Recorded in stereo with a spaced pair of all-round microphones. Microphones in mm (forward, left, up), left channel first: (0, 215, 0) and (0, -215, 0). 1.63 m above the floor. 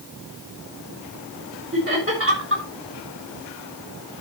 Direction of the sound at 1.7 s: 30° right (ahead or behind).